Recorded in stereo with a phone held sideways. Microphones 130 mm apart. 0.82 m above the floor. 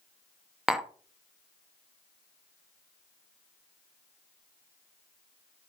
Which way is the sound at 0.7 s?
5° right (ahead or behind).